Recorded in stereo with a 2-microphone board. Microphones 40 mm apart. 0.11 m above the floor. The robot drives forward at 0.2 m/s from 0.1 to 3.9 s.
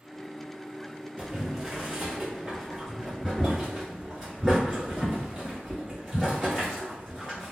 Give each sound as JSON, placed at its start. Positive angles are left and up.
{"t": 1.2, "sound": "boiling", "side_deg": -10, "distance_m": 1.5}